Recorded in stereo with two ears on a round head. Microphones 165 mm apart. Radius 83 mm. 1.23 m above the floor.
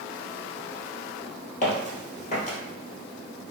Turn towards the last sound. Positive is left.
turn(degrees=40)  # may be behind; listen again after turning